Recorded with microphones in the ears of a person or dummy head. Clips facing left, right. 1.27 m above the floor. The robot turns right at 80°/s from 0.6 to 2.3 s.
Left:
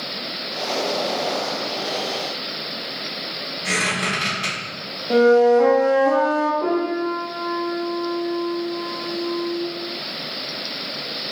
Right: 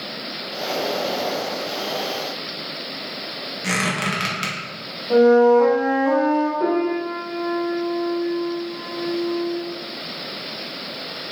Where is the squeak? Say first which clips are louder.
Right 1 dB; 70° right (ahead or behind), 1.0 m.